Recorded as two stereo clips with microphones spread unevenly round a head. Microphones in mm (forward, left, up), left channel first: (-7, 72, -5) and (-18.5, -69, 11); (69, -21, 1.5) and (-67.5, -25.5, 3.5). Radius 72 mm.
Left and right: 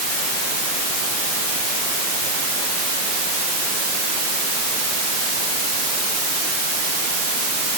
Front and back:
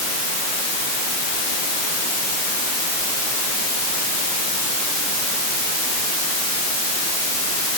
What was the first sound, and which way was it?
Only background noise.